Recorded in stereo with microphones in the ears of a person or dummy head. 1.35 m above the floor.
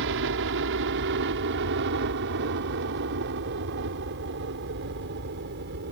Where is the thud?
I don't hear a thud.